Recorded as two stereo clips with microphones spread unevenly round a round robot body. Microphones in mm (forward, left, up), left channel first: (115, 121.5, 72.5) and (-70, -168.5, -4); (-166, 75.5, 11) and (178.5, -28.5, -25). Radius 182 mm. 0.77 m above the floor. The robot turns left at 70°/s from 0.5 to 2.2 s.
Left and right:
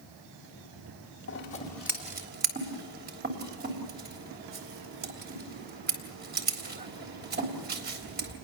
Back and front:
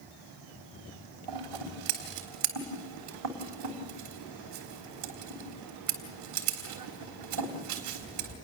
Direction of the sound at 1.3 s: 5° left.